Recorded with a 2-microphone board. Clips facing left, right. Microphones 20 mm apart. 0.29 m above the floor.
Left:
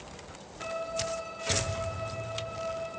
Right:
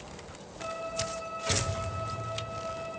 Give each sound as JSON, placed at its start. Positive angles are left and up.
{"t": 0.6, "sound": "a violin", "side_deg": 25, "distance_m": 8.5}